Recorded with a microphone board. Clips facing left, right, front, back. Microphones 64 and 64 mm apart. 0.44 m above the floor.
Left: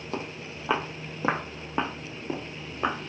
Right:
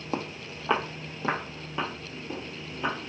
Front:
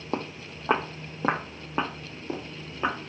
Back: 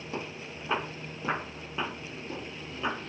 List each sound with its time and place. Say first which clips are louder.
0.1 s footsteps: right 2 dB, front 6 dB; 20° right, 0.8 m; by 3.0 s 50° left, 1.8 m